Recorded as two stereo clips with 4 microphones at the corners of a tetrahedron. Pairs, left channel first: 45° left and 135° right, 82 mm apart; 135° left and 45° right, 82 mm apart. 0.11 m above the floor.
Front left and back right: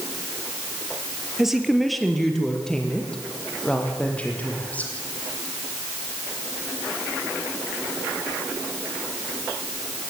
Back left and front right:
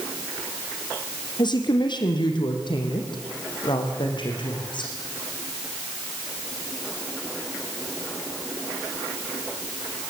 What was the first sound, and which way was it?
A woman speaking, 140° left.